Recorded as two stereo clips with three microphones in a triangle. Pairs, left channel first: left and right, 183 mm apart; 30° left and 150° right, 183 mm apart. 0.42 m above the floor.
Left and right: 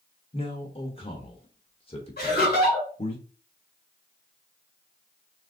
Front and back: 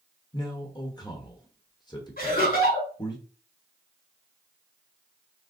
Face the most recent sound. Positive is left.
turn(degrees=60)